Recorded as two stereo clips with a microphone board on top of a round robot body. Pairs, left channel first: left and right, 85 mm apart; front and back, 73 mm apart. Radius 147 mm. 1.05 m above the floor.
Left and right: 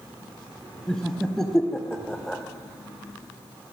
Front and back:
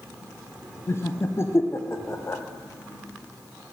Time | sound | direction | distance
0.9 | laughter | 10° left | 0.6 m